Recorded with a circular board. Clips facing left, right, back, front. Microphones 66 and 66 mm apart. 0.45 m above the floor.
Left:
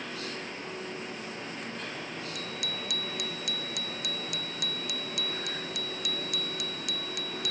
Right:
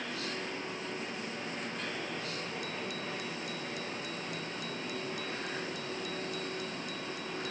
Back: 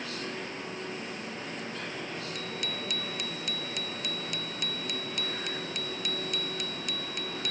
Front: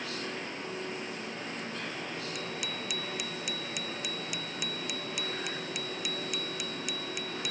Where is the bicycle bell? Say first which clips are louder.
Even, back 1 dB; 85° left.